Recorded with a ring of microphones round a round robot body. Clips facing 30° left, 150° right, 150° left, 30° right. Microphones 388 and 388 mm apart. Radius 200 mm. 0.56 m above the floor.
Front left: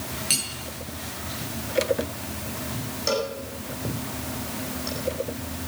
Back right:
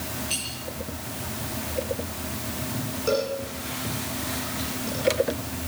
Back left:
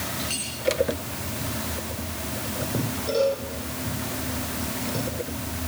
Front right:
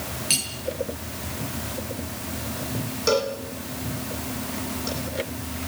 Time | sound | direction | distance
0.3 | cutlery clinking | 15° left | 7 m
3.1 | a cowbell | 30° right | 8.5 m